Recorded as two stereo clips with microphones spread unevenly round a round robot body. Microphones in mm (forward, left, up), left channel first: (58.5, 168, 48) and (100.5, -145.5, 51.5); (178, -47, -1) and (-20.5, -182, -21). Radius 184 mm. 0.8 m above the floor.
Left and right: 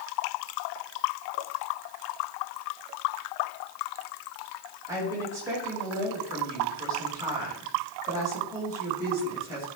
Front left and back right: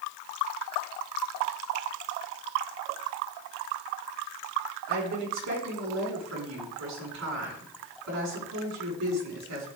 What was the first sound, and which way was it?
A woman speaking, 165° right.